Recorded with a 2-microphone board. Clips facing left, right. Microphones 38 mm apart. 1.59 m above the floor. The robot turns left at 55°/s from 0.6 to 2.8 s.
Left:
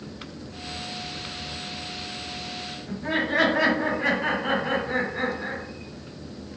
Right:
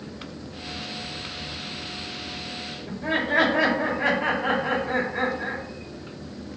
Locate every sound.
2.9 s laughter: 35° right (ahead or behind), 1.9 m